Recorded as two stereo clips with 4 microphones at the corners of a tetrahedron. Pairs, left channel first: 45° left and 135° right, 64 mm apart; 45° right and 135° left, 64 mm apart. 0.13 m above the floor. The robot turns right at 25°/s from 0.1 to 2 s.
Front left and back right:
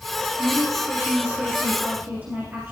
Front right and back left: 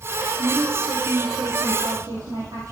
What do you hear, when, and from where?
0.4 s a woman speaking: 125° left, 3 m; by 2.7 s 165° left, 3 m